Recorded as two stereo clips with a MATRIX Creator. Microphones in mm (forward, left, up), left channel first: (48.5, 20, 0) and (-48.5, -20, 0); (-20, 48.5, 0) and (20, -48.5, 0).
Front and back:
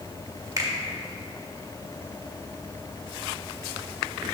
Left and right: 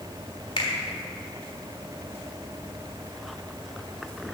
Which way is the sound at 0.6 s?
145° left.